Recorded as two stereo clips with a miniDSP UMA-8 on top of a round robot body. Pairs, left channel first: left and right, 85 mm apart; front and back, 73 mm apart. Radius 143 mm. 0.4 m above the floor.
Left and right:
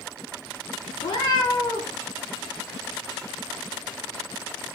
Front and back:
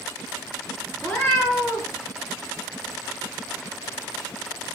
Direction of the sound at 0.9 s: 60° left.